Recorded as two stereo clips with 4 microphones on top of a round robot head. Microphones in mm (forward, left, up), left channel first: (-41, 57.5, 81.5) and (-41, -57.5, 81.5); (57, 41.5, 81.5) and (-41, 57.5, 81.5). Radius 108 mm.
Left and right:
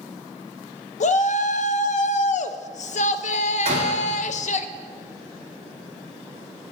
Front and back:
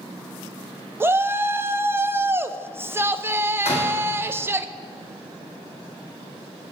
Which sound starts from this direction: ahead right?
A door slam, at 3.6 s.